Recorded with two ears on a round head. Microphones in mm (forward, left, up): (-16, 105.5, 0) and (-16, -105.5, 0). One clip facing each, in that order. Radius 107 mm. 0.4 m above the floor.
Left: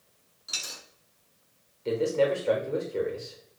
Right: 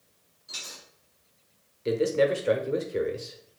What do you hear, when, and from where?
0.5 s a dropped coin: 85° left, 2 m
1.9 s a man speaking: 25° right (ahead or behind), 0.8 m